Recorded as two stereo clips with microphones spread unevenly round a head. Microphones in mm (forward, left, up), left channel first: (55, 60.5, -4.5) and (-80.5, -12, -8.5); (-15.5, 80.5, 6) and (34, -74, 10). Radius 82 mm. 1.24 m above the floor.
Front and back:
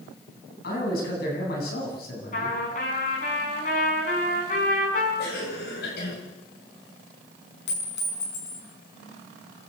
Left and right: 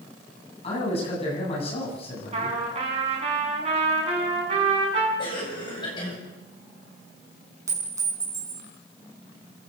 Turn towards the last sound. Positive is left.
turn(degrees=0)